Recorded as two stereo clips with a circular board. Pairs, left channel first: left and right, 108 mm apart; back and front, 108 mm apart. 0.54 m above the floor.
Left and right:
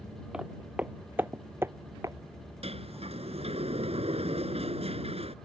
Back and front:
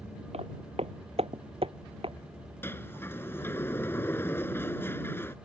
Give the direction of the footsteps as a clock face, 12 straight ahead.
12 o'clock.